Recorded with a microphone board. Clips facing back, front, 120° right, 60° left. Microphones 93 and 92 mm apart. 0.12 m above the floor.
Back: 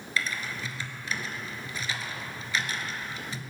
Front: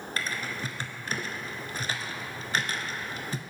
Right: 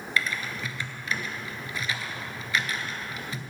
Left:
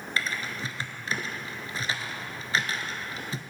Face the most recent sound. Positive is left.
turn(degrees=15)